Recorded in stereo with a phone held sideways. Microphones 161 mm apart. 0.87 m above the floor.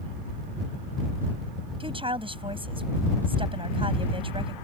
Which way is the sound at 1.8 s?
35° right (ahead or behind).